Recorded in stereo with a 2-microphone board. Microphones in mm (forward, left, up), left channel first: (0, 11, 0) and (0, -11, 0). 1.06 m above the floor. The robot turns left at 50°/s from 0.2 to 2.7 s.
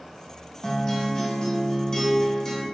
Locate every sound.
0.6 s a guitar: 20° left (ahead or behind), 0.6 m; by 2.6 s 15° left (ahead or behind), 0.6 m